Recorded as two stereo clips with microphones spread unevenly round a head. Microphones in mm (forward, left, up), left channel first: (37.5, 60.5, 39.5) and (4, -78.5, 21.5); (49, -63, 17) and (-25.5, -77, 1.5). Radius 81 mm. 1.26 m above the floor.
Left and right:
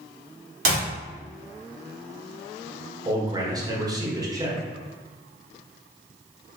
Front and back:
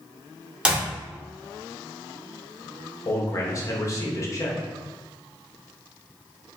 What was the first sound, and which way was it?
A clap, 90° right.